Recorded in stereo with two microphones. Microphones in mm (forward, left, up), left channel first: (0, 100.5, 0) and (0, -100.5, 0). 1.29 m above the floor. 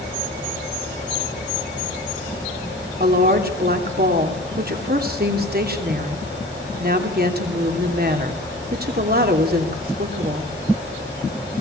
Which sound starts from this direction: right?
A woman speaking, at 3.0 s.